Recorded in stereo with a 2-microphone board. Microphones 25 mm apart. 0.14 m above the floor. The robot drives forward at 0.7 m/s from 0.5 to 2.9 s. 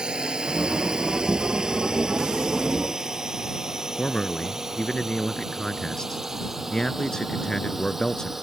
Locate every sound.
0.0 s a drone: 40° right (ahead or behind); by 8.4 s 15° right (ahead or behind)
4.0 s a man speaking: 30° left (ahead or behind)